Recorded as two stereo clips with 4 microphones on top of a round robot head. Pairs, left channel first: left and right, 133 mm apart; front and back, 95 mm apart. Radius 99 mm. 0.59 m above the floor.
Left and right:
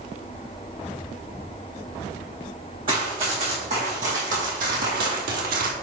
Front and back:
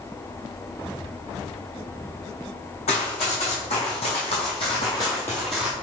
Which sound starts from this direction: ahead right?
Running footsteps, at 2.9 s.